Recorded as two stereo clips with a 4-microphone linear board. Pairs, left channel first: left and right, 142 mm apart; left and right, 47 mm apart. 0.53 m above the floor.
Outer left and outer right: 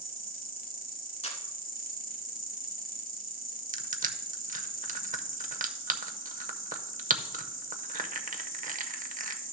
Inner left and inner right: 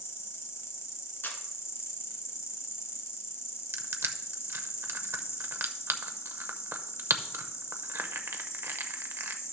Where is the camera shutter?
50° left (ahead or behind), 2 m.